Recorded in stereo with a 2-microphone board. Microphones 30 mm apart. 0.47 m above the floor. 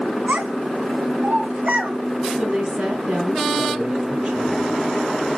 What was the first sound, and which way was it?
A child speaking, 75° right (ahead or behind).